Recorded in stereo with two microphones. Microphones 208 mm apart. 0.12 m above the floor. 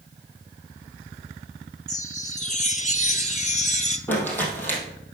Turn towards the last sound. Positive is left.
turn(degrees=10)  # may be behind; listen again after turning